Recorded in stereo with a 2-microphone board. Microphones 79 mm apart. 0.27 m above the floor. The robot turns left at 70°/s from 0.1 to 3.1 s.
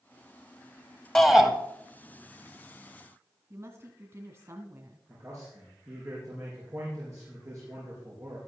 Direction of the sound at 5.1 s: 40° right (ahead or behind).